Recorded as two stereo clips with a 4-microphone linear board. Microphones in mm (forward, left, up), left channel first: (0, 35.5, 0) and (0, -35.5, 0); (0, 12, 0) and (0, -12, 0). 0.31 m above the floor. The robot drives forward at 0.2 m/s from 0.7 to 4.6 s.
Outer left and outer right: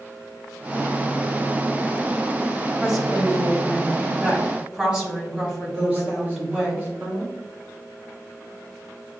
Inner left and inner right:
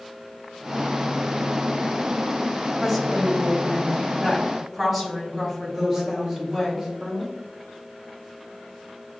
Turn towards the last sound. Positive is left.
turn(degrees=-25)  # may be behind; listen again after turning